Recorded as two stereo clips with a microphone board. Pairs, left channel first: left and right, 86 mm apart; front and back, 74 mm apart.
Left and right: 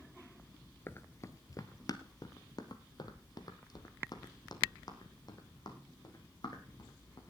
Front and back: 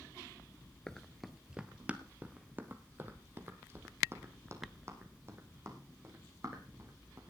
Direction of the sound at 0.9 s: 75° left.